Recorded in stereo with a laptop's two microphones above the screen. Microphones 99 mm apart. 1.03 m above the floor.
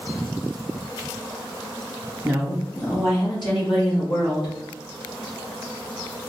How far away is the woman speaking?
About 1.6 m.